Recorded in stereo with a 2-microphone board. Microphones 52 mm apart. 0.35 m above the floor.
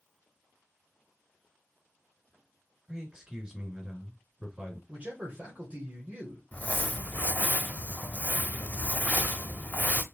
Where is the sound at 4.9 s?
30° right (ahead or behind), 1.5 m.